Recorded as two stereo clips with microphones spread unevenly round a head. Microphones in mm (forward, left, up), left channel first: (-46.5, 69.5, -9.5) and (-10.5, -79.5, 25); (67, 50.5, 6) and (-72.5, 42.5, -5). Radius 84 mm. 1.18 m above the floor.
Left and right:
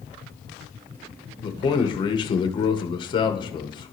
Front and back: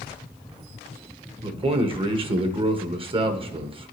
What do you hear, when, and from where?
1.4 s a man speaking: 145° left, 1.0 m